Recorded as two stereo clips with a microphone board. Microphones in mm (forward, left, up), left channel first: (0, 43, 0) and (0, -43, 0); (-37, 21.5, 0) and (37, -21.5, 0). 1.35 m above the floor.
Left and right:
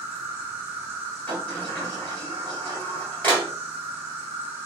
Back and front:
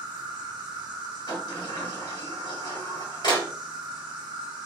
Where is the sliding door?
155° left, 1.9 m.